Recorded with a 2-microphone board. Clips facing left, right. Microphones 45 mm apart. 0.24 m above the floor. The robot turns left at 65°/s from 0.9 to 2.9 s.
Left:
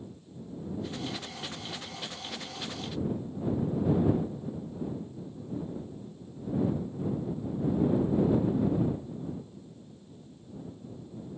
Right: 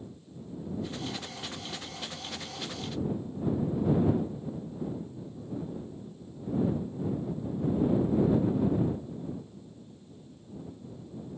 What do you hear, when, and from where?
Only background noise.